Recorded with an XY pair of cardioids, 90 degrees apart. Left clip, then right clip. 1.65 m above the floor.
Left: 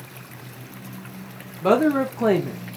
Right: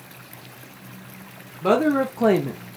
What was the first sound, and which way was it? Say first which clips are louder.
A woman speaking: left 1 dB; 15° left.